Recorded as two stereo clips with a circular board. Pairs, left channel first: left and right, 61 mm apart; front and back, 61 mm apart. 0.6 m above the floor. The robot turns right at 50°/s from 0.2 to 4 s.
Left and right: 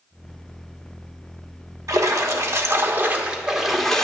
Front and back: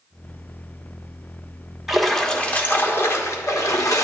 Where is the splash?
95° right, 1.2 m; by 4.0 s 10° left, 1.2 m.